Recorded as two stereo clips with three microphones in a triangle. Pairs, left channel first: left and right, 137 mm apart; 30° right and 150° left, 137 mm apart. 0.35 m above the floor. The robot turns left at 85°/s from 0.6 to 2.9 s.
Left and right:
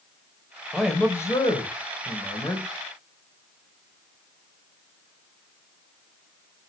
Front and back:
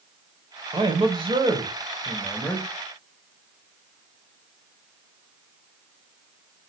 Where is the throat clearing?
I don't hear throat clearing.